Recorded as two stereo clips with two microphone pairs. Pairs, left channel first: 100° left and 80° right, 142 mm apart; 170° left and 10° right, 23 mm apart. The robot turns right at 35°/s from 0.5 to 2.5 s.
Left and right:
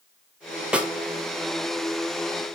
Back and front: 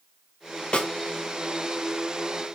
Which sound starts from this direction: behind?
A snare drum, at 0.7 s.